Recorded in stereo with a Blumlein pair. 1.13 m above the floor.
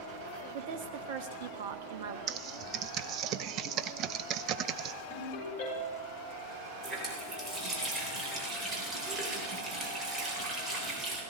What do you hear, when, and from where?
0.5 s a woman speaking: 50° right, 1.4 m
2.3 s typing on a keyboard: 35° right, 0.6 m
5.1 s a ringtone: 50° left, 7.5 m
6.8 s a running tap: 20° right, 3.5 m